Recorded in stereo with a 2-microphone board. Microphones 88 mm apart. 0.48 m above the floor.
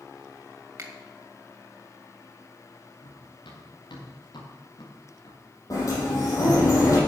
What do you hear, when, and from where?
0.8 s a finger snap: 35° right (ahead or behind), 2 m
3.0 s running footsteps: 70° left (ahead or behind), 4.5 m; by 5.4 s 60° left (ahead or behind), 3.5 m
5.7 s a sliding door: 45° left (ahead or behind), 5.5 m